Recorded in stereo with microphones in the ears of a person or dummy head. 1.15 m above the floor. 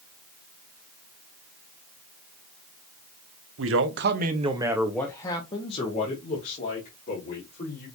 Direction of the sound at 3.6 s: 60° right (ahead or behind).